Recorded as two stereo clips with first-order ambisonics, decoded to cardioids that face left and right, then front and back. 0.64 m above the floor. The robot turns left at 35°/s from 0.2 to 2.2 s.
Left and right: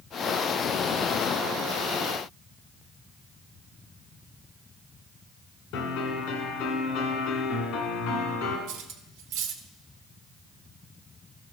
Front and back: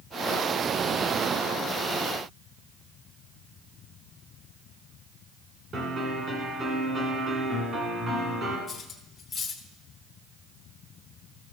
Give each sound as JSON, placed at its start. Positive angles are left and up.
{"t": 5.7, "sound": "a piano", "azimuth_deg": 115, "distance_m": 2.5}
{"t": 8.7, "sound": "cutlery clinking", "azimuth_deg": -75, "distance_m": 1.0}